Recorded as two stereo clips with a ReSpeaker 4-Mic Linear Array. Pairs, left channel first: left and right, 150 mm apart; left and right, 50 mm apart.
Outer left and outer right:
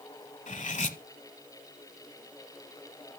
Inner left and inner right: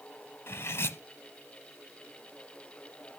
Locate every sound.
0.5 s cutlery clinking: 55° left (ahead or behind), 1.0 m